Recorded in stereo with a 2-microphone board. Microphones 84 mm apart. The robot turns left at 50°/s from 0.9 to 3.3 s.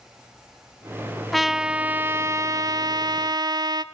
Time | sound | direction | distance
1.3 | a trumpet | 5° left | 0.6 m